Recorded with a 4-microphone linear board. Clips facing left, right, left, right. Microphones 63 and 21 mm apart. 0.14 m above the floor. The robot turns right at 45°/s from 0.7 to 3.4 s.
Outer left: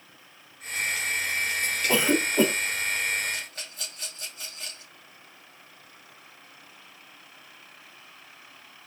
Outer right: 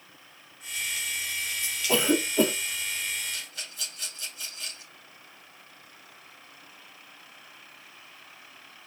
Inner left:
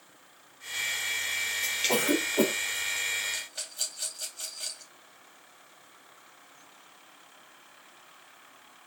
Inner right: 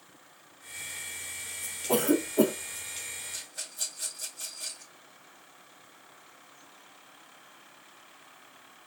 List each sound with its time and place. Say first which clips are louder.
1.9 s a cough: even, inner right 3 dB; 10° left (ahead or behind), 1.2 m; by 2.5 s 20° left (ahead or behind), 1.2 m
3.3 s a rattle: outer left 3 dB, inner left 4 dB; 45° left (ahead or behind), 3 m; by 4.9 s 50° left (ahead or behind), 3 m